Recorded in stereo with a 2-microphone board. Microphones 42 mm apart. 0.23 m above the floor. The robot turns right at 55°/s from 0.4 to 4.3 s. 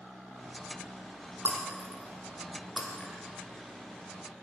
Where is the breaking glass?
75° right (ahead or behind), 3.5 m; by 3.1 s 15° left (ahead or behind), 3.5 m.